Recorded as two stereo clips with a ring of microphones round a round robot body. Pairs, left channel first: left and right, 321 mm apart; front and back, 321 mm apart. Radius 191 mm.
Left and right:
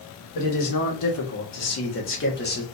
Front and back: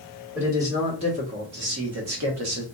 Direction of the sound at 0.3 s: 95° left.